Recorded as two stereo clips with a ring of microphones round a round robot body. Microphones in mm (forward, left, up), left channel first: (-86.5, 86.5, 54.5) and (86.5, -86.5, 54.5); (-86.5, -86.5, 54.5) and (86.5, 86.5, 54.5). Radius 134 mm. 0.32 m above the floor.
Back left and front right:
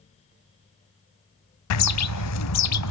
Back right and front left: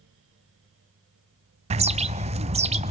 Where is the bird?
110° left, 0.6 m.